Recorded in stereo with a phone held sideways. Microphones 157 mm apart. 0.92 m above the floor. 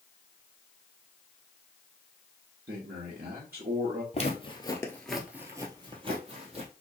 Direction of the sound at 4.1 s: 45° left (ahead or behind).